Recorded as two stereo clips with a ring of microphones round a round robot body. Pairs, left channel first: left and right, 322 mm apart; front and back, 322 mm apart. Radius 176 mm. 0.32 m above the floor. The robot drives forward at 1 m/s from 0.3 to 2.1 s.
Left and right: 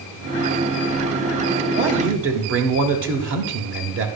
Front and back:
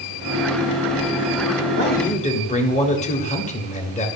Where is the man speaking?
40° right, 1.4 m; by 4.1 s 60° right, 1.3 m.